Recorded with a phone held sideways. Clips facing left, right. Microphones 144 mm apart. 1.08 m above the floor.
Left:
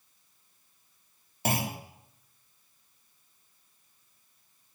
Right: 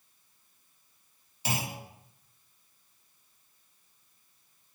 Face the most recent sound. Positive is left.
turn(degrees=55)  # may be behind; listen again after turning